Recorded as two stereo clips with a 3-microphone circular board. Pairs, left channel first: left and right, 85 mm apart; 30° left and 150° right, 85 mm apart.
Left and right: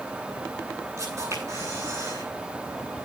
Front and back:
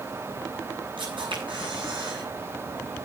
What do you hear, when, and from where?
1.0 s a camera shutter: 145° right, 9 m